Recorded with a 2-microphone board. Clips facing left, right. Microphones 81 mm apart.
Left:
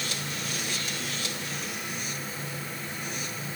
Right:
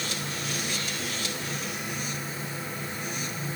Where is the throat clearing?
No throat clearing in this recording.